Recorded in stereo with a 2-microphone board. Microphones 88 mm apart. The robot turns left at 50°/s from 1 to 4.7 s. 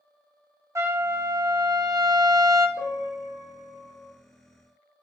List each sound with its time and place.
0.8 s a trumpet: 45° right, 0.5 m; by 2.7 s 130° right, 0.5 m
2.8 s a piano: 50° right, 1.5 m; by 4.1 s 115° right, 1.5 m